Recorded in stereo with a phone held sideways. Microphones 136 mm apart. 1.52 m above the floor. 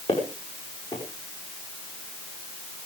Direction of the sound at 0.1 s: 45° left (ahead or behind).